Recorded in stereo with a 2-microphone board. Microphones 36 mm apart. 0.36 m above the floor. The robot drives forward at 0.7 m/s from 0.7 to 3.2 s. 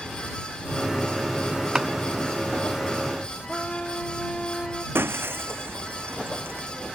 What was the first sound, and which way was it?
Chopping, 20° right (ahead or behind).